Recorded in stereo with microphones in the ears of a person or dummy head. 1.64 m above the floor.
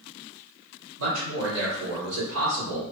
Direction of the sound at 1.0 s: 80° right.